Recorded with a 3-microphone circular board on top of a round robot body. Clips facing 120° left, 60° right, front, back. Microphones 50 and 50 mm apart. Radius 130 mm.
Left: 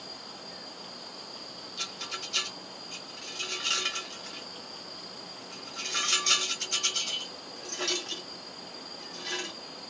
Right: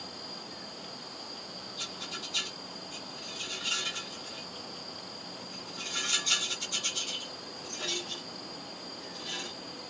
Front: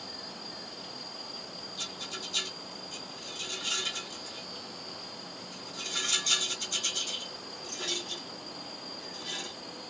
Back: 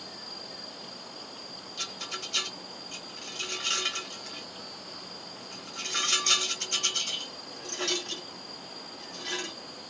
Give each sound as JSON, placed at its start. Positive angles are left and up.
{"t": 1.8, "sound": "a rattle", "azimuth_deg": 145, "distance_m": 0.7}